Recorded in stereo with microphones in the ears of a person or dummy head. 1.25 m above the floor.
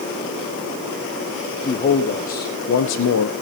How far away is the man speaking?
About 1.7 m.